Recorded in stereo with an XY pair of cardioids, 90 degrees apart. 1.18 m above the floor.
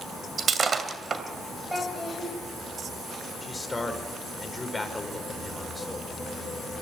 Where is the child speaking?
5° right, 3.5 m.